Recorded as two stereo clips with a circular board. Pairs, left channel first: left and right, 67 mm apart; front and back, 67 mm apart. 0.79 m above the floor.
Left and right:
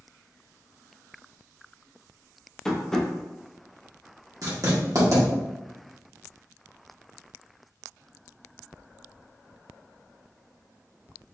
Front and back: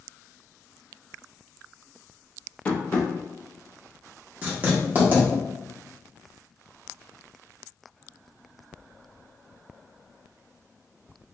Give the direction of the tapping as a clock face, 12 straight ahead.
11 o'clock.